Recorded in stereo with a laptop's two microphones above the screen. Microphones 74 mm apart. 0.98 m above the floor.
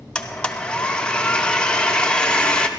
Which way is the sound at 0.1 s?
15° left (ahead or behind).